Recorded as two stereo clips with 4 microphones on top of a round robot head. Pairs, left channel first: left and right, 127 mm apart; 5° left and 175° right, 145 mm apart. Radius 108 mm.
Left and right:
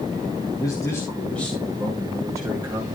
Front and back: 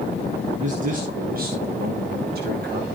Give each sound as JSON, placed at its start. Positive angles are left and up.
{"t": 0.6, "sound": "a man speaking", "azimuth_deg": 155, "distance_m": 2.0}